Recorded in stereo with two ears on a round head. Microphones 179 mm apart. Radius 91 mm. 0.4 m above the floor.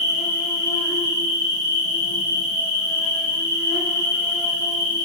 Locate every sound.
0.0 s an insect: 35° left (ahead or behind), 0.9 m